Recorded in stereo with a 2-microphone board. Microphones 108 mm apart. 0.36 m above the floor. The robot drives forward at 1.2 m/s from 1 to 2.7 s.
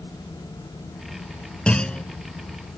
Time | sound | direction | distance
1.7 | a clunk | 10° left (ahead or behind) | ?